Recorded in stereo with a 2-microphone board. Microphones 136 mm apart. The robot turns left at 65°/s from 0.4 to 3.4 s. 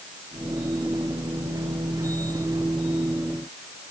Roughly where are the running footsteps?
No running footsteps in this recording.